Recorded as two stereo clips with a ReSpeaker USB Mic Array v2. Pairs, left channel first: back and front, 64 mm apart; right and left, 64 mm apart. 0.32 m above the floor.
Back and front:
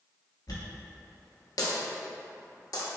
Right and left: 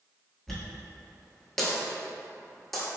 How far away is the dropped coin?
About 1.0 m.